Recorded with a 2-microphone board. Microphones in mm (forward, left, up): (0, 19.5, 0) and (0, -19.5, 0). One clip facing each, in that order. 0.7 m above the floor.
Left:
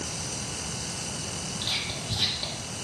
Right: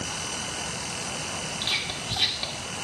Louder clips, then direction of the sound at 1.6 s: Right 2 dB; 25° right (ahead or behind).